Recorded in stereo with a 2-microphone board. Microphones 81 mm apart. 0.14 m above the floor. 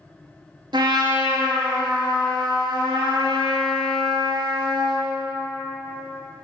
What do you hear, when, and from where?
0.7 s a trumpet: 65° right (ahead or behind), 0.7 m